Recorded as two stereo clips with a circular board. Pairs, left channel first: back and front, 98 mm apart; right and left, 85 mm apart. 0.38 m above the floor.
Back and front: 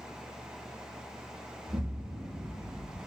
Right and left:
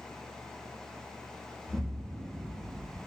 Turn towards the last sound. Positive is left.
turn(degrees=25)